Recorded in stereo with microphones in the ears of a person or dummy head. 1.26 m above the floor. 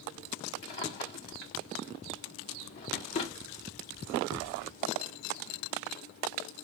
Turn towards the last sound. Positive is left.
turn(degrees=50)  # may be behind; listen again after turning